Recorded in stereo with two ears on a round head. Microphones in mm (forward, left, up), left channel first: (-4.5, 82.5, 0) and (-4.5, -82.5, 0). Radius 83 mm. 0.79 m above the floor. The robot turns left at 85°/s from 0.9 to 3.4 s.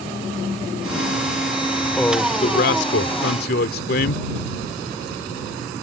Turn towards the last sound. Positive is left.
turn(degrees=55)